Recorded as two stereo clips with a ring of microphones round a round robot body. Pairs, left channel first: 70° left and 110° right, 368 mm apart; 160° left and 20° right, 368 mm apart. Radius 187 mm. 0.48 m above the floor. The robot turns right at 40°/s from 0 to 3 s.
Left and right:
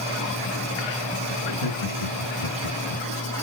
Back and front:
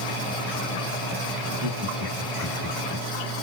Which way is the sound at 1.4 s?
20° left.